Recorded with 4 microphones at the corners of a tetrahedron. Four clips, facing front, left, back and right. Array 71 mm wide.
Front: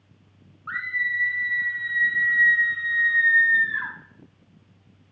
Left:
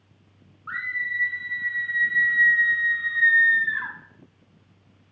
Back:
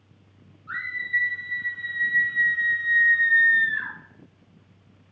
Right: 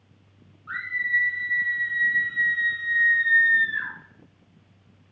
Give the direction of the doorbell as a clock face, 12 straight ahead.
No doorbell in this recording.